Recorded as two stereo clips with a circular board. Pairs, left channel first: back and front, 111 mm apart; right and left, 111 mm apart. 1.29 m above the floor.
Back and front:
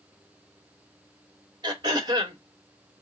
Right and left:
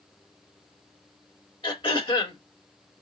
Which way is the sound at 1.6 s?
50° right.